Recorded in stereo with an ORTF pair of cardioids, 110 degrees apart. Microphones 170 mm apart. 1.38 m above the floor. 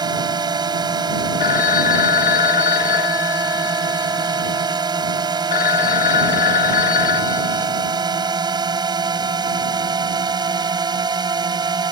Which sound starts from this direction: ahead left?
A phone ringing, at 1.4 s.